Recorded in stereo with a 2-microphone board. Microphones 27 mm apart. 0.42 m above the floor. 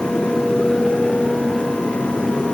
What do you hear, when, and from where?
Only background noise.